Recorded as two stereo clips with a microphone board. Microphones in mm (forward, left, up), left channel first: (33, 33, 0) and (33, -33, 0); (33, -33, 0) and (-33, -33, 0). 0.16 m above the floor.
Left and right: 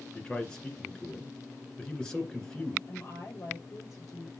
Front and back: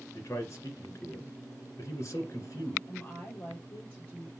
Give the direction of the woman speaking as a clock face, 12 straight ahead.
10 o'clock.